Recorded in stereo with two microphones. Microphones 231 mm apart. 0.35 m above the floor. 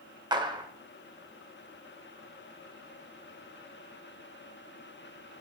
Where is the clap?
20° right (ahead or behind), 0.8 m.